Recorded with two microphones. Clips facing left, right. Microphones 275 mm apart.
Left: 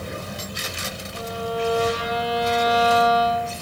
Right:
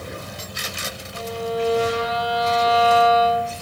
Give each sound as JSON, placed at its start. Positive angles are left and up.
{"t": 1.1, "sound": "a violin", "side_deg": -25, "distance_m": 1.1}